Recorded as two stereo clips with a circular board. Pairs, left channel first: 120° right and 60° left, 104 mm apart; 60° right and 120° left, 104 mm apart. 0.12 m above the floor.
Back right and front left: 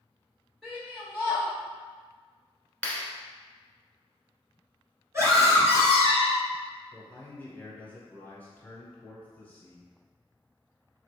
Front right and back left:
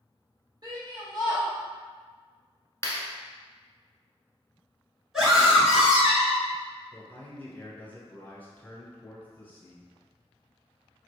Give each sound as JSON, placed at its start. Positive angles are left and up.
{"t": 0.6, "sound": "a shout", "azimuth_deg": 150, "distance_m": 1.8}
{"t": 2.8, "sound": "a clap", "azimuth_deg": -55, "distance_m": 1.1}
{"t": 5.1, "sound": "a scream", "azimuth_deg": 40, "distance_m": 1.5}
{"t": 6.9, "sound": "a man speaking", "azimuth_deg": -90, "distance_m": 1.1}